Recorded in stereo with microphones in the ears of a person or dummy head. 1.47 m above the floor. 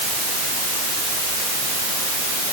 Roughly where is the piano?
No piano in this recording.